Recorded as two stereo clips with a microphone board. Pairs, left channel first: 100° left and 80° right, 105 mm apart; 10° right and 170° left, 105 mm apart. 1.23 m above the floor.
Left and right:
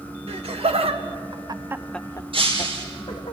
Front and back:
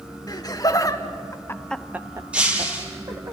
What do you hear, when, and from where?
0.3 s laughter: 65° right, 2.5 m; by 3.3 s 120° left, 2 m
2.3 s breaking glass: 110° right, 4 m